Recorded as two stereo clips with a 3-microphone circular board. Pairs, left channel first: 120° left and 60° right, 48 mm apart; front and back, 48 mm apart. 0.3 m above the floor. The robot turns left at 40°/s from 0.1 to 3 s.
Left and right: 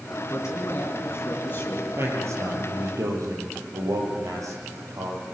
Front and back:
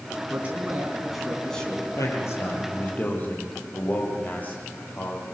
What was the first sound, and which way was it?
A man speaking, 125° left.